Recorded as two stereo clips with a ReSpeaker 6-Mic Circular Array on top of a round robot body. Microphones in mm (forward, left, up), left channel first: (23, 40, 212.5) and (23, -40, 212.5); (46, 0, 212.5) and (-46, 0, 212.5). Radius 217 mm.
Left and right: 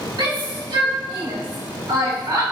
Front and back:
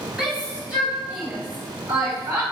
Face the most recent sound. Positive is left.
turn(degrees=-120)